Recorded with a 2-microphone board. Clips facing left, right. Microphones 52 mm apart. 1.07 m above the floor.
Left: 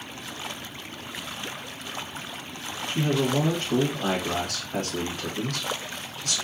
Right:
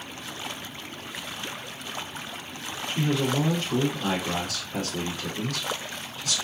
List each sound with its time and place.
2.9 s a man speaking: 55° left (ahead or behind), 1.5 m